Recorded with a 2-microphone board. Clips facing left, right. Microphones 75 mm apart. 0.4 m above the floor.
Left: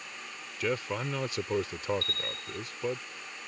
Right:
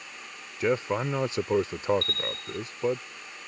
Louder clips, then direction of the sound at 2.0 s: Right 4 dB; 45° right (ahead or behind).